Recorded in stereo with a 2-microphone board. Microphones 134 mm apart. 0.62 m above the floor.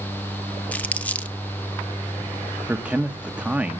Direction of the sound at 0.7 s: 10° left (ahead or behind).